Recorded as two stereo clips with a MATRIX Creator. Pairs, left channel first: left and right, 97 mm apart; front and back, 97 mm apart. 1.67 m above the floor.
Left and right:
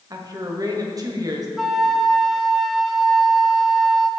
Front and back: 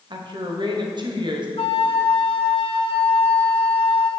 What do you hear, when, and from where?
0.1 s a woman speaking: 140° right, 1.2 m
1.6 s a flute: 5° right, 0.6 m